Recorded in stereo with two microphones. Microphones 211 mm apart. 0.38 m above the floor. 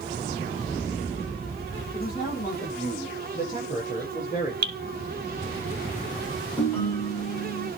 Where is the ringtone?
10° left (ahead or behind), 5.5 m.